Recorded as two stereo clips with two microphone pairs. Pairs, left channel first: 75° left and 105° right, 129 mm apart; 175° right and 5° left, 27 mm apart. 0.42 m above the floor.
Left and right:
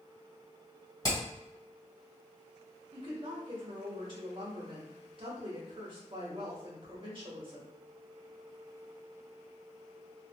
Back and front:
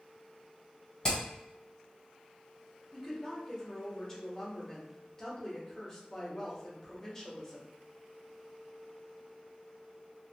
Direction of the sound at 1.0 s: 130° left.